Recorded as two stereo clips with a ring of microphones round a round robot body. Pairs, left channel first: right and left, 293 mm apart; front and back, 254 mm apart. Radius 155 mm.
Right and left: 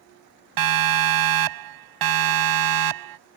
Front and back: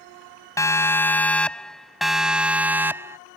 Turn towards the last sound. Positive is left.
turn(degrees=100)